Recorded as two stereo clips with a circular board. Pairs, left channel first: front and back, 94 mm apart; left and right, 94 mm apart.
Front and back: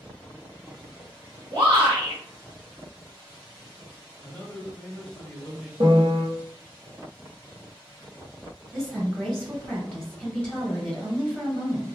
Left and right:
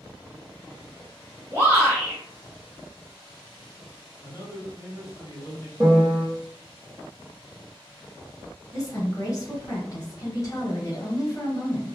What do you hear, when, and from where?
1.5 s a shout: 150° right, 1.2 m
4.2 s a man speaking: 60° left, 1.2 m
5.8 s a piano: 165° right, 1.1 m
8.7 s a woman speaking: 70° left, 1.8 m